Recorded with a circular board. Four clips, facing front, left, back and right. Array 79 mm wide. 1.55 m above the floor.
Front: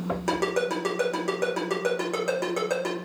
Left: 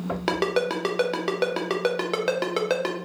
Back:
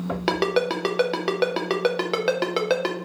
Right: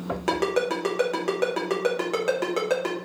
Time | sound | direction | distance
0.3 | a ringtone | 155° left | 0.6 m